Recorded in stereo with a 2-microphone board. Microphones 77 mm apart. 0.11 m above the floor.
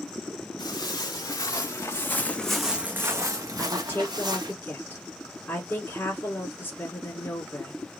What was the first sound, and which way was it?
Footsteps, 65° left (ahead or behind).